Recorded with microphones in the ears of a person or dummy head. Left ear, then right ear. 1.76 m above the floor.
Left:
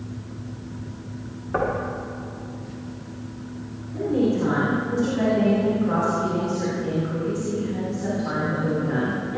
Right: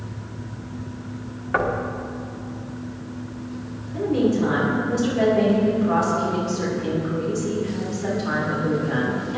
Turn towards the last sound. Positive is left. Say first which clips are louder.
# right 1 dB
turn(degrees=-15)  # may be behind; listen again after turning